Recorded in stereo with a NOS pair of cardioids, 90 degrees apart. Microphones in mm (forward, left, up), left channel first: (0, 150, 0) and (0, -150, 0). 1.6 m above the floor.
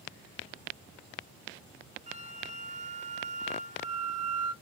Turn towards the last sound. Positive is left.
turn(degrees=-25)